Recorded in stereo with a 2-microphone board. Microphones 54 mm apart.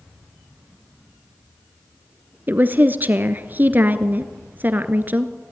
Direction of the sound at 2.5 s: 35° right (ahead or behind).